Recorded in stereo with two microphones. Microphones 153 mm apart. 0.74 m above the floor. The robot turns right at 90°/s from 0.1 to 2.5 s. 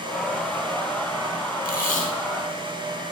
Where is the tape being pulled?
90° left, 2.5 m; by 2.1 s 130° left, 2.5 m.